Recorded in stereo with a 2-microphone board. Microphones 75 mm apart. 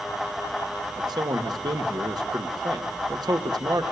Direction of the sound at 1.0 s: 60° right (ahead or behind).